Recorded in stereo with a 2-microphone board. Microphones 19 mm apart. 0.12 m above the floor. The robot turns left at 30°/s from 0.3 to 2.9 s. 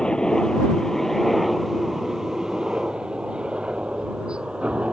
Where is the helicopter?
45° left (ahead or behind); by 4.9 s 60° right (ahead or behind).